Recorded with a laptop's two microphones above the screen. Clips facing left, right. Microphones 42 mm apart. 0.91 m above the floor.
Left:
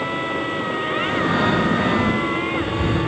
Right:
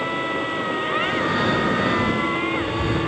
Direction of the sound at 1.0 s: 80° left.